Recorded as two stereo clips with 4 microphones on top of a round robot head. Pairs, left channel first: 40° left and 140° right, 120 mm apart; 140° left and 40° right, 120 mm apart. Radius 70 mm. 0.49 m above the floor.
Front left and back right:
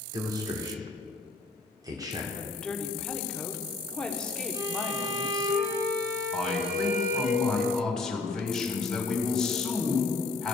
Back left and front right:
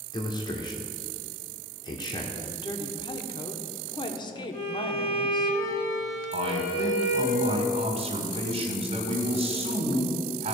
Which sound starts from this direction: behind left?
A woman speaking, at 2.3 s.